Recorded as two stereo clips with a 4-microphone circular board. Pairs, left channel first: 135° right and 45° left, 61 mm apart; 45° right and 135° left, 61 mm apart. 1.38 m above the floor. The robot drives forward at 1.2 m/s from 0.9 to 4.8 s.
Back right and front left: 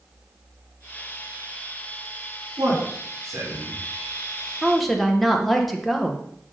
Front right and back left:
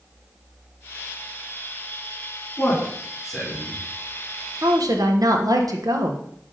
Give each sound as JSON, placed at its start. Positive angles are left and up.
{"t": 2.6, "sound": "a man speaking", "azimuth_deg": 35, "distance_m": 4.0}
{"t": 4.6, "sound": "a woman speaking", "azimuth_deg": 130, "distance_m": 0.9}